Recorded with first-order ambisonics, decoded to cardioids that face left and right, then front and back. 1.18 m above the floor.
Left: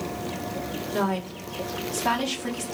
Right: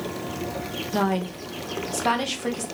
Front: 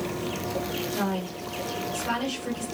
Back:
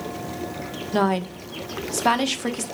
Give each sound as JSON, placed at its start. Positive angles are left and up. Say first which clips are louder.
{"t": 0.9, "sound": "a woman speaking", "louder": "right 2 dB, back 7 dB", "azimuth_deg": -170, "distance_m": 1.2}